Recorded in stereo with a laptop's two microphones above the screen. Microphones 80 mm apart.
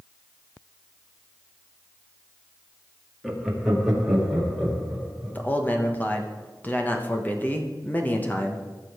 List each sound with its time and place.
3.2 s laughter: 5° right (ahead or behind), 1.7 m
5.3 s a man speaking: 20° left (ahead or behind), 1.2 m